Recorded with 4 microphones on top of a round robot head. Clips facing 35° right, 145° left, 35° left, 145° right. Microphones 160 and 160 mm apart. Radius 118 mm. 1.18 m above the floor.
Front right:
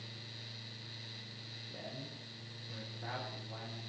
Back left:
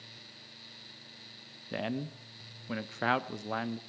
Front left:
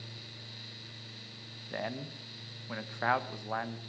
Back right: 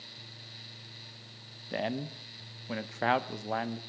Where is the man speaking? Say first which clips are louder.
Back left 13 dB, back right 5 dB; 150° left, 1.0 m.